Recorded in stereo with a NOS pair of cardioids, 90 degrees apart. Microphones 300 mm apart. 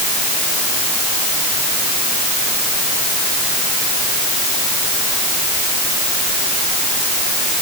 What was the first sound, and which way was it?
Only background noise.